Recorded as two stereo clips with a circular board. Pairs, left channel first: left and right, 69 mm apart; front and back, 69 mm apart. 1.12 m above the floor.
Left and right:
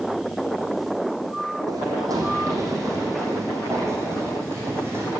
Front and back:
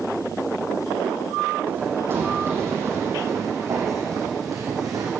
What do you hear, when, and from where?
1.7 s running footsteps: 120° right, 3.5 m; by 5.1 s 145° right, 4 m